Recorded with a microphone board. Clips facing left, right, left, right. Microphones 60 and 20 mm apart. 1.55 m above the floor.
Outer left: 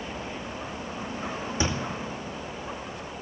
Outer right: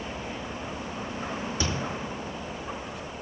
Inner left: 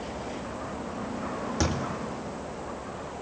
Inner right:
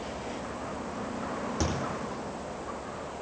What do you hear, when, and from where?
1.6 s a thud: 20° left (ahead or behind), 2.5 m